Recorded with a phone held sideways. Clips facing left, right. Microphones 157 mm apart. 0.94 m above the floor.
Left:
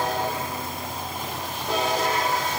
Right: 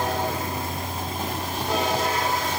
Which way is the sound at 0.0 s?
80° right.